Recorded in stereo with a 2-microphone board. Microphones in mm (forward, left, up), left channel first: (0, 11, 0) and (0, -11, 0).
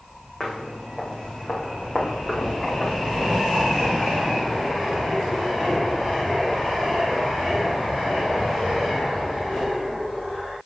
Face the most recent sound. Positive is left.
turn(degrees=60)  # may be behind; listen again after turning